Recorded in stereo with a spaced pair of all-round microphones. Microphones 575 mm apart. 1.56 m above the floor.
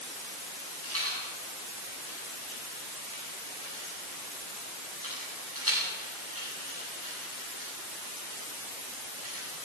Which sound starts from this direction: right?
A rattle, at 0.8 s.